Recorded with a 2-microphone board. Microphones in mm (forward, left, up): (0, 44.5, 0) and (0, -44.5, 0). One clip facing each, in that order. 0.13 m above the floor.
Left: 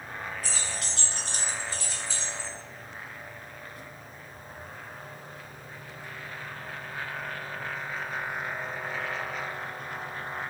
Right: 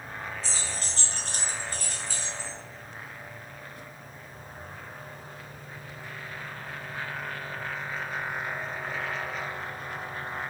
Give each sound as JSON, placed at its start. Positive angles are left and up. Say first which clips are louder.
{"t": 0.4, "sound": "keys jangling", "louder": "even", "side_deg": -25, "distance_m": 0.9}